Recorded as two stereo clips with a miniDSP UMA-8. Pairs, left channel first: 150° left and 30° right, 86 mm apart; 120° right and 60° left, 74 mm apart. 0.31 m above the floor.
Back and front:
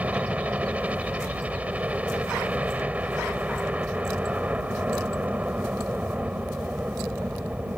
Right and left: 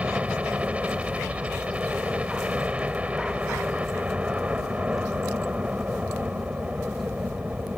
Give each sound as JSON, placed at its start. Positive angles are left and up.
{"t": 0.0, "sound": "a helicopter", "azimuth_deg": 20}